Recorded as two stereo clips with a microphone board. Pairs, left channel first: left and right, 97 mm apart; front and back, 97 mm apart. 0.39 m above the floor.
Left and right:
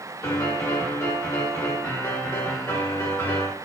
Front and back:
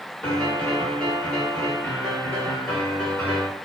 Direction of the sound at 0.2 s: 65° left.